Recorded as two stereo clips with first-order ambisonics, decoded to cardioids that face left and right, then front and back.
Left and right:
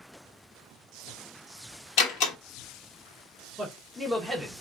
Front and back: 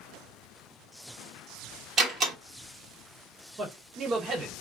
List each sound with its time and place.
2.0 s a door slam: 120° left, 1.2 m
3.6 s a man speaking: straight behind, 0.7 m